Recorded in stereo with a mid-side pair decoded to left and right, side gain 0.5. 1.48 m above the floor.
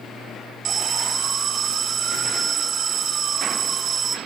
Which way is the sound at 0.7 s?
50° right.